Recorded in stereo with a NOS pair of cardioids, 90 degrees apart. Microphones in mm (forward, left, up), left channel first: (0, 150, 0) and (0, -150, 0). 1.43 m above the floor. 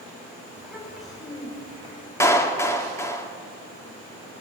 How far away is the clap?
About 2.5 m.